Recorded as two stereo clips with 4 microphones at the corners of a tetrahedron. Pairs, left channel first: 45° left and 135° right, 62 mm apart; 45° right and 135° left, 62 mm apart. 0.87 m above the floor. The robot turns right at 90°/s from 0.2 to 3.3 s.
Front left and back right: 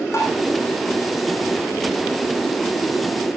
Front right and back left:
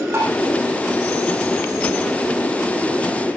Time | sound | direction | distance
0.1 | tapping | 85° left | 8 m